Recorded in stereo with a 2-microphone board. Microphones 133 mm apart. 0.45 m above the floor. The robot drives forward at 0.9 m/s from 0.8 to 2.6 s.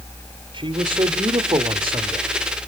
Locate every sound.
0.5 s a man speaking: 35° right (ahead or behind), 1.2 m; by 2.3 s 30° right (ahead or behind), 1.3 m